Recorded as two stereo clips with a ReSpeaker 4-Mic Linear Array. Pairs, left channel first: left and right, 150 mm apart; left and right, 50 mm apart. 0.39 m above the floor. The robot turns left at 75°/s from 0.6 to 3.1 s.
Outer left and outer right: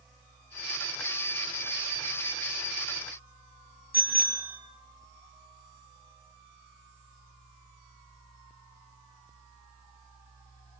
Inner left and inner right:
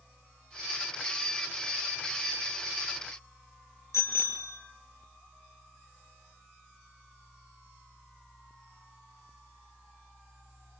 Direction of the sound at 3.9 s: 80° left.